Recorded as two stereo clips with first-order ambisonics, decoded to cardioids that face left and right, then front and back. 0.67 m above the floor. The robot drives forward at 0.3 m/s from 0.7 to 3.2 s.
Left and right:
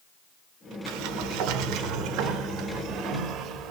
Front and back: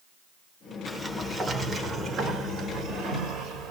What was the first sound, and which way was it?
A sliding door, 95° right.